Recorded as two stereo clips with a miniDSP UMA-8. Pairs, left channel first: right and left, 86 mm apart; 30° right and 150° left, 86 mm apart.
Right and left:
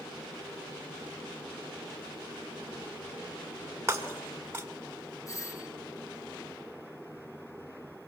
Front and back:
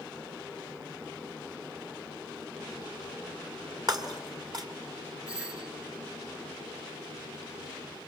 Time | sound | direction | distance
3.9 | breaking glass | 140° left | 1.9 m
5.3 | a doorbell | 135° right | 1.5 m